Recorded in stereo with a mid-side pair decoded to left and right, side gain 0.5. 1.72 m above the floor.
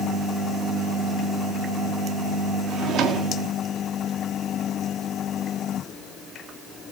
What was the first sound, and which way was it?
A drawer, 65° right.